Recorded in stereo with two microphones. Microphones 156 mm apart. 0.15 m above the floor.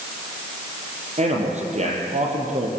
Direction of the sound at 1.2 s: 50° right (ahead or behind).